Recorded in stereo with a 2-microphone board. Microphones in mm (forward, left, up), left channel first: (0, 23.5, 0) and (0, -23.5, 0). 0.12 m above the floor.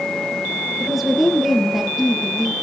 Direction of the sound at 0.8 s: Centre (ahead or behind).